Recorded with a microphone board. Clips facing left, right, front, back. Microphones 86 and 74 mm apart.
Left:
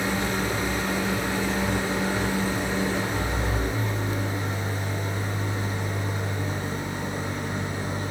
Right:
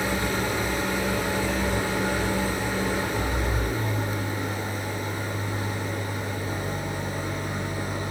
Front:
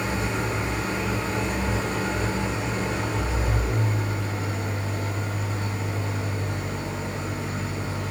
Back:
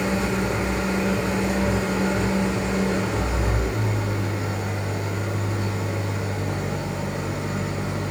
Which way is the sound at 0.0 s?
155° left.